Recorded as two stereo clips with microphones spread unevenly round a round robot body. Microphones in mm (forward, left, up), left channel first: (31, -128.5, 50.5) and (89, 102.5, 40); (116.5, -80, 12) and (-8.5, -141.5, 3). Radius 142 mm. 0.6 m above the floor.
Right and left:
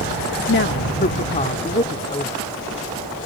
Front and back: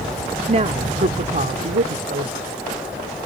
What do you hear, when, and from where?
0.5 s a woman speaking: 135° right; by 2.3 s straight behind